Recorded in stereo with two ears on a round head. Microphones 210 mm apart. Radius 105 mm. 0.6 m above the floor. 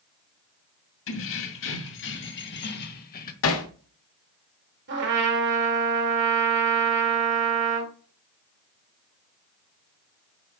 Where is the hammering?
65° left (ahead or behind), 1.6 m.